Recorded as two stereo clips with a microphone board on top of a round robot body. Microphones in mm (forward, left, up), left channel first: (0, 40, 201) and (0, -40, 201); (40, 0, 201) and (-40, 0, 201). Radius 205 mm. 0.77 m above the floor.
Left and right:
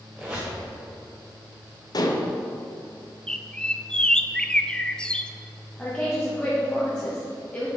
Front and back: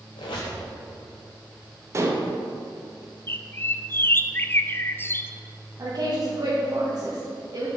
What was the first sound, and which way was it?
A squeak, 10° right.